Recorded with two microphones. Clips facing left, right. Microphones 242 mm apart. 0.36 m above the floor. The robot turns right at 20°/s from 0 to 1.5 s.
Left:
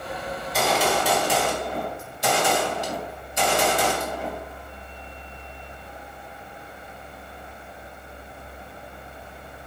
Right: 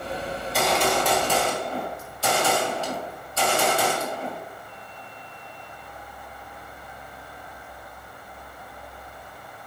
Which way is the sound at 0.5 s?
Centre (ahead or behind).